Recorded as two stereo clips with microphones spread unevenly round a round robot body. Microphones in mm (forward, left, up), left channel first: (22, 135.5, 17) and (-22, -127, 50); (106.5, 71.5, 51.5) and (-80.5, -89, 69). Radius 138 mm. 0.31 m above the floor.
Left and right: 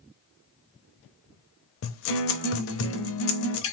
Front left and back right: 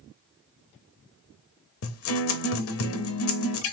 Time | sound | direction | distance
1.8 | a guitar | 55° left | 0.5 m